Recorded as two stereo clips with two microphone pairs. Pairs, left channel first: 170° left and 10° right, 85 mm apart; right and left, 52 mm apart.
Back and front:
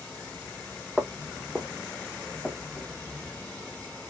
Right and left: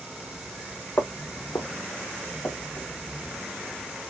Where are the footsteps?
85° right, 0.7 m; by 2.9 s 90° right, 2.5 m.